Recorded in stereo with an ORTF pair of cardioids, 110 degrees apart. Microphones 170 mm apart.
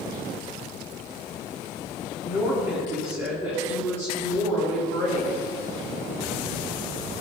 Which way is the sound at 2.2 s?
15° right.